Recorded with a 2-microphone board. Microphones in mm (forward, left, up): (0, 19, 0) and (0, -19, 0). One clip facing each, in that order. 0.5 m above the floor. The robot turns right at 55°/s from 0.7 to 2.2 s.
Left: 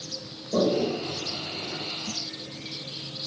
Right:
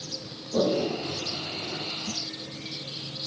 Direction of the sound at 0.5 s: 55° left (ahead or behind).